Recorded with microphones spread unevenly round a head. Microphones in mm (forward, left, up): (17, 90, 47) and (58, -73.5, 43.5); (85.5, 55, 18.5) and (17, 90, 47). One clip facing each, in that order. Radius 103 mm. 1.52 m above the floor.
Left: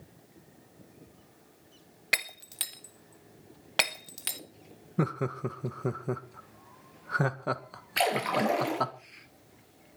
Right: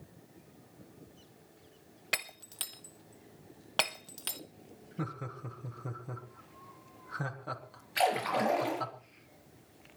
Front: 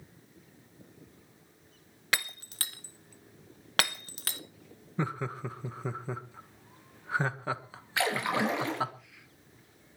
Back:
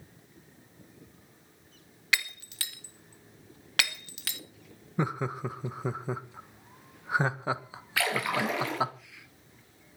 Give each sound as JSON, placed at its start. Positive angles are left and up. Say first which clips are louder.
{"t": 2.1, "sound": "breaking glass", "louder": "left 3 dB, back 2 dB", "azimuth_deg": 30, "distance_m": 0.8}
{"t": 5.0, "sound": "laughter", "louder": "left 10 dB, back 3 dB", "azimuth_deg": 80, "distance_m": 1.7}
{"t": 8.0, "sound": "a splash", "louder": "left 2 dB, even", "azimuth_deg": 40, "distance_m": 6.5}